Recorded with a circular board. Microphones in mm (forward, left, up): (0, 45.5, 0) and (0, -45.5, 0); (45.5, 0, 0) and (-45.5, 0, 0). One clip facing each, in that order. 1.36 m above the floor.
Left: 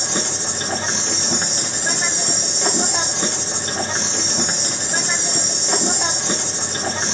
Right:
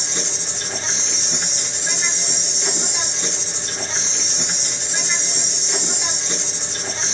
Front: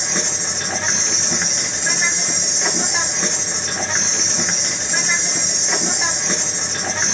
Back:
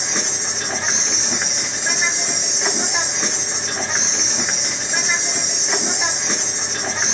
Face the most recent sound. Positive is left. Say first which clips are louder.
# left 5 dB, front 1 dB
turn(degrees=95)